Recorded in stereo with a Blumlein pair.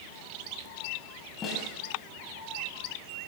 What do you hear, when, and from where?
1.4 s a snare drum: 20° left, 7.5 m